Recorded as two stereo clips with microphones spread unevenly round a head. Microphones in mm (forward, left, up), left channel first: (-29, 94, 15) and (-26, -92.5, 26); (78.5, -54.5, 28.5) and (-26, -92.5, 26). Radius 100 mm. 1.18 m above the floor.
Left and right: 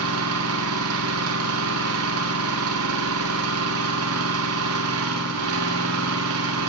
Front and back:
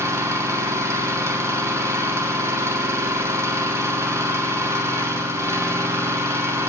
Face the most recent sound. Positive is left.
turn(degrees=-90)